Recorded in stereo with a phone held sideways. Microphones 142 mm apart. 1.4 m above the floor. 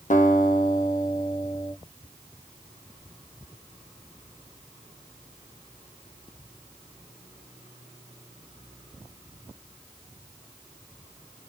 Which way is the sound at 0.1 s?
65° left (ahead or behind).